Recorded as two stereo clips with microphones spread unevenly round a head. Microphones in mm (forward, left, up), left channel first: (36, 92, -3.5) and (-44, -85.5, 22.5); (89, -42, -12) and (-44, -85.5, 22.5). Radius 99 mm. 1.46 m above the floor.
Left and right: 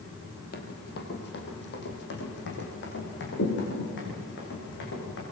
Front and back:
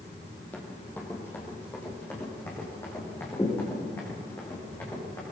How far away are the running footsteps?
About 3 m.